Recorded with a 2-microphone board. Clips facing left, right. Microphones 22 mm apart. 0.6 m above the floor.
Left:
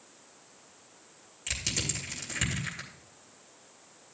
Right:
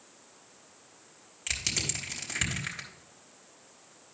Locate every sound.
1.5 s crushing: 20° right (ahead or behind), 3 m